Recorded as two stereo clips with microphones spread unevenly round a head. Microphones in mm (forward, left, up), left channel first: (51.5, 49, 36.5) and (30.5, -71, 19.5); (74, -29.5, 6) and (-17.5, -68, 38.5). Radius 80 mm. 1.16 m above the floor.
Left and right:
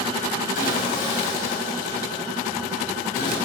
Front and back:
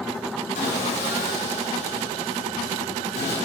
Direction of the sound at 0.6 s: 60° left.